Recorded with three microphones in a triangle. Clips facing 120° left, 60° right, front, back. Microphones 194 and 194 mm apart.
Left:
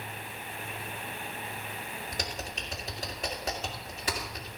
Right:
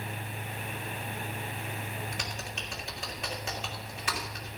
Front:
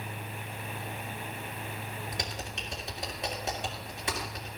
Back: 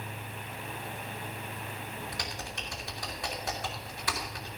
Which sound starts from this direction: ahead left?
Typing on a keyboard, at 2.1 s.